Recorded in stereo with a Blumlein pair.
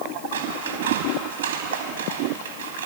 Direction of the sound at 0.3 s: 60° right.